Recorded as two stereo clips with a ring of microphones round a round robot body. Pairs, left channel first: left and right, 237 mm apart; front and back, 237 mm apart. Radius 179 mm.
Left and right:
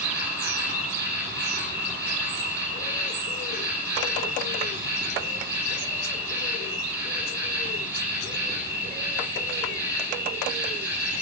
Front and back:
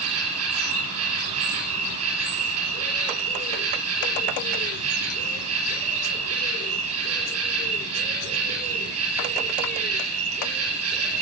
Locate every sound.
0.0 s an insect: 170° right, 3 m